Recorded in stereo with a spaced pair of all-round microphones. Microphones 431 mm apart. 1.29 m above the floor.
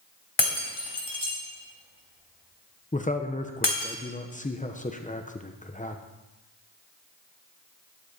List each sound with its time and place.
0.4 s breaking glass: 70° left (ahead or behind), 3 m
2.9 s a man speaking: 20° left (ahead or behind), 0.8 m